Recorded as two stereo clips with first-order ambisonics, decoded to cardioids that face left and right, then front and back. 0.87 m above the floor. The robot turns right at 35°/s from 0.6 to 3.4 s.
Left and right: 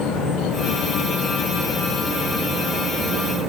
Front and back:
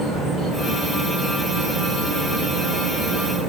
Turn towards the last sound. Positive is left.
turn(degrees=-155)